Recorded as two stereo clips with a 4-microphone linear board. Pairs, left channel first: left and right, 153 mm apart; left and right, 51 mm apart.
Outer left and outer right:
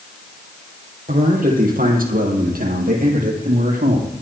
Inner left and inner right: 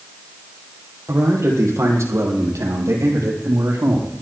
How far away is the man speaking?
About 4.5 m.